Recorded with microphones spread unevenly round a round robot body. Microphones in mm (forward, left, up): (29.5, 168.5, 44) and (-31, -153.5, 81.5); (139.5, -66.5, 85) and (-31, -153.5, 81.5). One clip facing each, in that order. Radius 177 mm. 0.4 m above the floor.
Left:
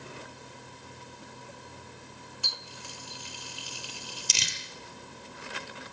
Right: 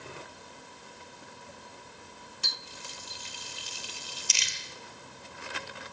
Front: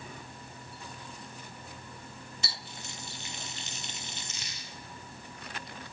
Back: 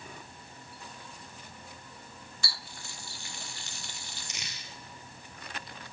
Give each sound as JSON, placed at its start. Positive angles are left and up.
{"t": 2.4, "sound": "a running tap", "azimuth_deg": -40, "distance_m": 0.8}
{"t": 4.3, "sound": "crumpling", "azimuth_deg": 125, "distance_m": 3.0}